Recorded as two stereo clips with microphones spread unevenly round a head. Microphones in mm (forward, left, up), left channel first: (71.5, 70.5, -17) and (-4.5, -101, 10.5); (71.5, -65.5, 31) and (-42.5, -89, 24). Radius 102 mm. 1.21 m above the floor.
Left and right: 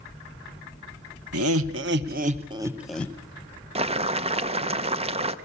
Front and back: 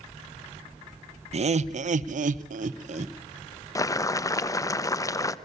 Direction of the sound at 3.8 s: 55° right.